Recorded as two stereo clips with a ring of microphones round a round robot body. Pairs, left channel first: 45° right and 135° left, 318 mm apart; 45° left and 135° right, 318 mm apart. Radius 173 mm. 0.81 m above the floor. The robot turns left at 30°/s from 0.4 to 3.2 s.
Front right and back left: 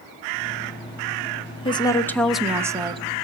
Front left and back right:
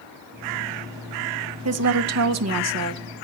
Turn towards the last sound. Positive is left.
turn(degrees=-160)